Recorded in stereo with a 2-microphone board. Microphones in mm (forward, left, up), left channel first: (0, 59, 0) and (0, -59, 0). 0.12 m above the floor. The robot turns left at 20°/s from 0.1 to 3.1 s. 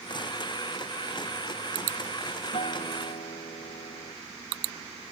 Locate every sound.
2.5 s a guitar: 60° left (ahead or behind); by 4.2 s 70° left (ahead or behind)